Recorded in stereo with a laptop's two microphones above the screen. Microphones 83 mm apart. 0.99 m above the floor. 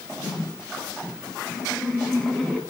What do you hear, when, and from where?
1.4 s laughter: 5° right (ahead or behind), 6.5 m; by 2.6 s 5° left (ahead or behind), 7 m